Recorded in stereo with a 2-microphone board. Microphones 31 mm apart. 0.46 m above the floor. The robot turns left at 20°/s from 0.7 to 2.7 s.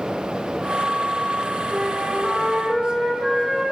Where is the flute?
15° right (ahead or behind), 8.5 m; by 3.7 s 5° left (ahead or behind), 8.5 m.